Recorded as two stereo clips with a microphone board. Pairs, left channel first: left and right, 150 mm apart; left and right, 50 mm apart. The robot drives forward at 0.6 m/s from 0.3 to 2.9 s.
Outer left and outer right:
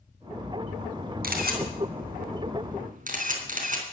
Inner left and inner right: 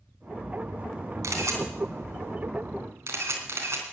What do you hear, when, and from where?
1.2 s a camera shutter: 75° right (ahead or behind), 3 m; by 3.8 s 60° right (ahead or behind), 3.5 m